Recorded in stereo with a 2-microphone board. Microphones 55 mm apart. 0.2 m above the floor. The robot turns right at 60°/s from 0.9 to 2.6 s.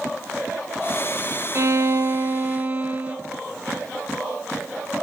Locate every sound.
1.6 s a violin: 100° right, 1.0 m; by 3.2 s 40° right, 1.0 m